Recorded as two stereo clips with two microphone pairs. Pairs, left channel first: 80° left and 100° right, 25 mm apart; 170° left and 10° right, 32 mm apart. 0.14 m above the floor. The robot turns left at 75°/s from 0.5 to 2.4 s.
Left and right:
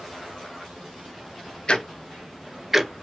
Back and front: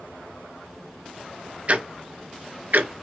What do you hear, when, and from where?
1.7 s ticking: 30° left, 0.5 m; by 2.9 s 25° right, 0.5 m